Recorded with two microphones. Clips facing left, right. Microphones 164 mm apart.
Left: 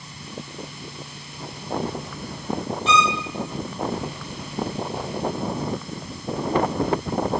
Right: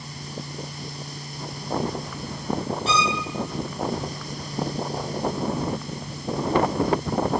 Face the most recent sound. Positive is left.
turn(degrees=-40)  # may be behind; listen again after turning